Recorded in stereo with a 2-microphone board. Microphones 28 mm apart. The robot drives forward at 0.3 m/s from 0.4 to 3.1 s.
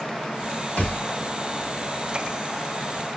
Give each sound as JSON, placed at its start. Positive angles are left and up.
{"t": 0.8, "sound": "a thud", "side_deg": 55, "distance_m": 3.5}